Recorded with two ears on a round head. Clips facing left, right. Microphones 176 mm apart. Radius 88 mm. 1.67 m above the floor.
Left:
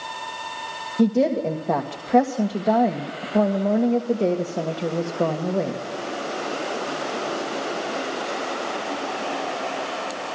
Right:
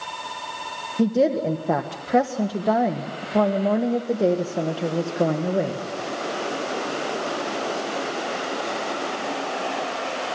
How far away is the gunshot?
I don't hear a gunshot.